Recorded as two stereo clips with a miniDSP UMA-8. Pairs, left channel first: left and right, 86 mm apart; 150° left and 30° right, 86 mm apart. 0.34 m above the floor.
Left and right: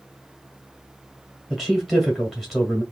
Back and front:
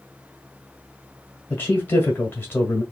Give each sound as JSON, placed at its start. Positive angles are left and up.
{"t": 1.5, "sound": "a man speaking", "azimuth_deg": 175, "distance_m": 1.4}